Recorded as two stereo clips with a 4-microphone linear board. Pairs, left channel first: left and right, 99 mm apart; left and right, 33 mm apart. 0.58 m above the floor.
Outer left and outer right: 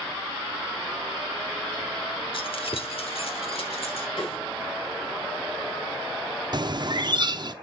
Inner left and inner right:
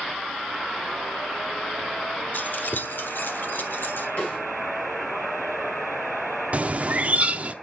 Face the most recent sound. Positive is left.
turn(degrees=-45)  # may be behind; listen again after turning